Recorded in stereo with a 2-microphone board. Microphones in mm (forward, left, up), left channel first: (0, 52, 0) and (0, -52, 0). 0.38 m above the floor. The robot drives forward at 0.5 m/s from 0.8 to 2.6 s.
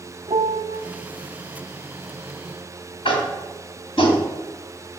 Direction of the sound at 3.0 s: 65° left (ahead or behind).